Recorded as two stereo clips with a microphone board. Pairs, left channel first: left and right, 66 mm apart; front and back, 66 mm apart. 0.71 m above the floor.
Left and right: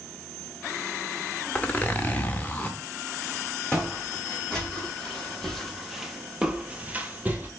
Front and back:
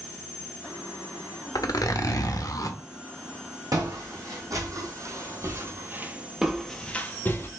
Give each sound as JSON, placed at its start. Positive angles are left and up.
{"t": 1.6, "sound": "a zipper", "azimuth_deg": 25, "distance_m": 0.7}
{"t": 3.7, "sound": "footsteps", "azimuth_deg": 165, "distance_m": 2.0}